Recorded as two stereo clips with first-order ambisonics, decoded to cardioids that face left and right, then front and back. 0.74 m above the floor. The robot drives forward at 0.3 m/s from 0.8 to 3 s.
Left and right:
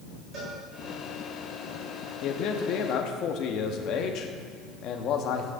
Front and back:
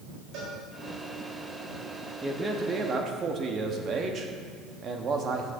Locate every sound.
0.3 s a cowbell: 145° right, 4 m
2.2 s a man speaking: 105° left, 0.7 m; by 5.5 s 125° left, 0.8 m